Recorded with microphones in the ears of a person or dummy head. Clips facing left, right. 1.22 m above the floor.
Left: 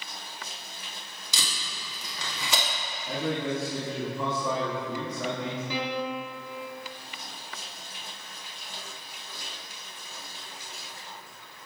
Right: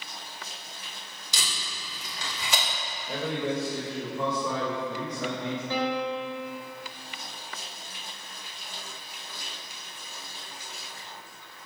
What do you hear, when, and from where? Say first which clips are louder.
1.3 s tape being pulled: even; 65° left (ahead or behind), 1.6 m
3.1 s a man speaking: even; 65° left (ahead or behind), 2 m
5.7 s a piano: right 4 dB; 75° left (ahead or behind), 1.8 m